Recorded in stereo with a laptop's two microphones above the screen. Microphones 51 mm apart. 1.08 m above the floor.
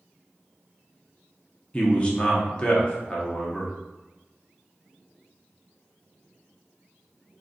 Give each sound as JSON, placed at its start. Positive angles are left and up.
{"t": 1.7, "sound": "a man speaking", "side_deg": 25, "distance_m": 0.6}